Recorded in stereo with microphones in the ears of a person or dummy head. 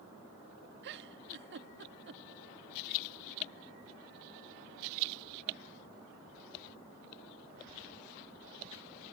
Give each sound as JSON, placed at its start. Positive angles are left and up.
{"t": 0.8, "sound": "a giggle", "side_deg": -60}